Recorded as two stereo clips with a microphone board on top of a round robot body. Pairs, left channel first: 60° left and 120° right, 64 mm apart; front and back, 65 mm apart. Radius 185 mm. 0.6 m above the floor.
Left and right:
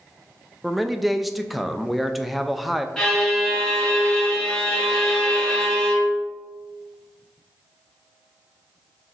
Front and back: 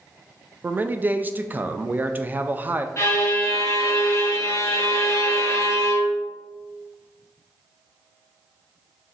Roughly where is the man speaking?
Behind left.